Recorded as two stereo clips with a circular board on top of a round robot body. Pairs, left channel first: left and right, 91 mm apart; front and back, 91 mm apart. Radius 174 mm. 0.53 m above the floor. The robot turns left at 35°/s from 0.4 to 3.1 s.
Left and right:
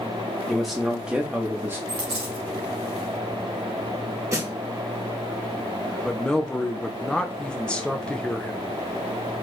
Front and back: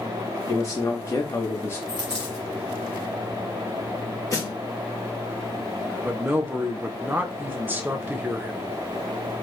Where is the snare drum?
40° right, 1.5 m.